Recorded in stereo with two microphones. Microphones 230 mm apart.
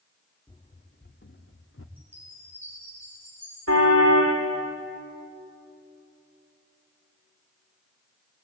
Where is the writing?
I don't hear writing.